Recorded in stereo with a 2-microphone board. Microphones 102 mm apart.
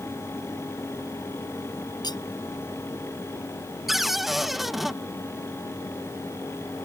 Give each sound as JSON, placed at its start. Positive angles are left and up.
{"t": 2.0, "sound": "cutlery clinking", "side_deg": 45}
{"t": 3.9, "sound": "a cupboard door", "side_deg": 0}